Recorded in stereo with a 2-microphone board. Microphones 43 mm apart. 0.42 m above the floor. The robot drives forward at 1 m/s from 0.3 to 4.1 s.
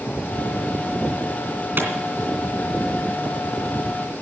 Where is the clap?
50° right (ahead or behind), 3 m; by 1.9 s 55° right (ahead or behind), 2.5 m.